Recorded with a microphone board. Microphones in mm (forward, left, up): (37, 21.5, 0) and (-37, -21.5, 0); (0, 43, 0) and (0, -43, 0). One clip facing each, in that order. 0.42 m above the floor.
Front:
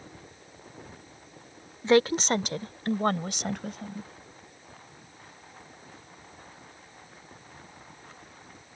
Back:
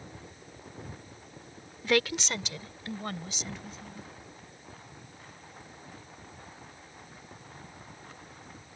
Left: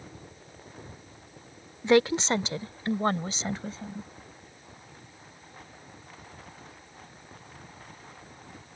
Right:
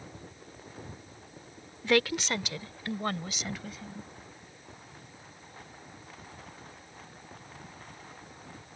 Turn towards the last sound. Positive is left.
turn(degrees=35)